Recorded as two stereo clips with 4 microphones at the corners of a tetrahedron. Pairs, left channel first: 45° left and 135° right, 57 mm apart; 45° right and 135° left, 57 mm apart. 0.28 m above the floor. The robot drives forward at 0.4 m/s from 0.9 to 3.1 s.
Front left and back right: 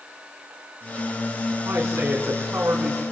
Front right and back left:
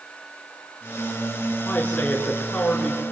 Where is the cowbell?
I don't hear a cowbell.